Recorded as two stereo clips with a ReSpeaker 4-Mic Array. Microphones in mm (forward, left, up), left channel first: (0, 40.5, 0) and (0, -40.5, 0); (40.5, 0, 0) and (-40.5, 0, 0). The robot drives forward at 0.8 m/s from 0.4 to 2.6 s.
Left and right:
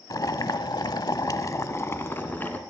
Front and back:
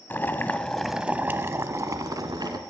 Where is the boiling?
60° left, 0.8 m; by 2.6 s 155° left, 1.6 m.